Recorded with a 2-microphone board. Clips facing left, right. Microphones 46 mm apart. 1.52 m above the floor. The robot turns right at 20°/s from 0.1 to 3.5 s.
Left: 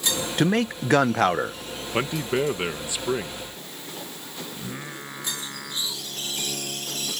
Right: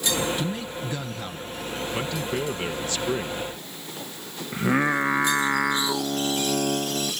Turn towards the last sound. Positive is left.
turn(degrees=-70)  # may be behind; listen again after turning